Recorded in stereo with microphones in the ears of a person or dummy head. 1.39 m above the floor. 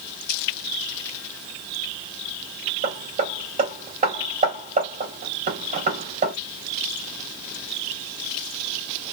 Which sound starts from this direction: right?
Hammering, at 2.8 s.